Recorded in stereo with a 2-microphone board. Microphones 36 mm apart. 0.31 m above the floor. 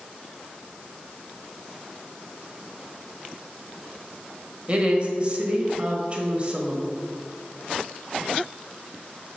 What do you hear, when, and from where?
4.7 s a woman speaking: 35° right (ahead or behind), 1.4 m